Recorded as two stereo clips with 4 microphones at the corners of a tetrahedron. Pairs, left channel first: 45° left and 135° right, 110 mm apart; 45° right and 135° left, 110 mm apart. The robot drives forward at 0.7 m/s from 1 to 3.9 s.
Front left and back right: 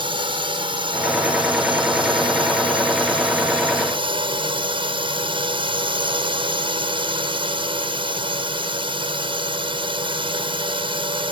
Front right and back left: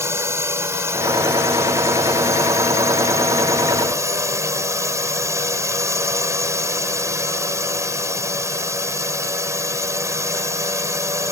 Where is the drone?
165° right.